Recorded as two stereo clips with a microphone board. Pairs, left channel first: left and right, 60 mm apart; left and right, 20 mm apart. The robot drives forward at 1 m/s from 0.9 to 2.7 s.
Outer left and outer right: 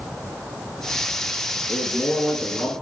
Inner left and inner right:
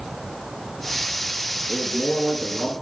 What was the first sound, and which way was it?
A man speaking, 25° left (ahead or behind).